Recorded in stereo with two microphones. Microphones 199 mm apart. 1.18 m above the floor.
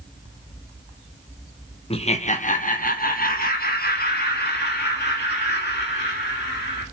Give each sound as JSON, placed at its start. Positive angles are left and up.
{"t": 1.9, "sound": "laughter", "side_deg": 30, "distance_m": 0.7}